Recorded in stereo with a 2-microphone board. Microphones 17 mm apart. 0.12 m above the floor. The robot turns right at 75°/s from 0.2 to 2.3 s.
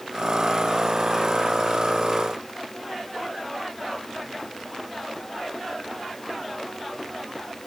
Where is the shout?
I don't hear a shout.